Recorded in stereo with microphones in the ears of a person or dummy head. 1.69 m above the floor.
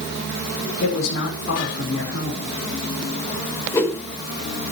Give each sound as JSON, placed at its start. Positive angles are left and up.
{"t": 0.8, "sound": "a woman speaking", "side_deg": 70, "distance_m": 5.5}
{"t": 3.7, "sound": "a whoosh", "side_deg": 15, "distance_m": 4.5}